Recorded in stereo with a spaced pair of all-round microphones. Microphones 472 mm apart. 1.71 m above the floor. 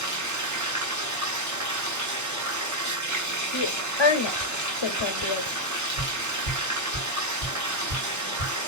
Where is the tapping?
70° right (ahead or behind), 4 m.